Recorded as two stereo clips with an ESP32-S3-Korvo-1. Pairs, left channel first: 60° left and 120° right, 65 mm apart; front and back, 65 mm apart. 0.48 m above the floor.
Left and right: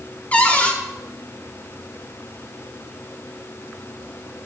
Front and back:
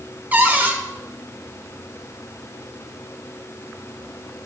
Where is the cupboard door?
125° left, 0.8 m.